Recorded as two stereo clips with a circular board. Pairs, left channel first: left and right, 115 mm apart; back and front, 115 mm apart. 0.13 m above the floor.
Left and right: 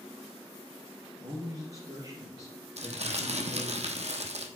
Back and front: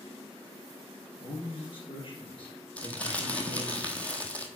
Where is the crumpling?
100° right, 0.9 m.